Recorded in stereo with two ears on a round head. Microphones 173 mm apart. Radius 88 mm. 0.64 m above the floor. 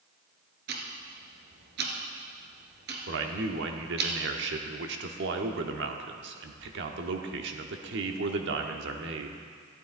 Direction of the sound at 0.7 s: 55° right (ahead or behind).